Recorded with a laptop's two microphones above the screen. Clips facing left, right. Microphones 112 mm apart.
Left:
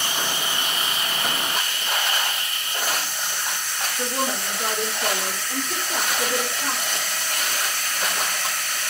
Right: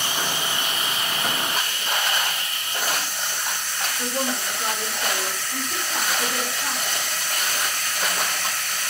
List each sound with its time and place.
4.0 s a woman speaking: 60° left (ahead or behind), 3 m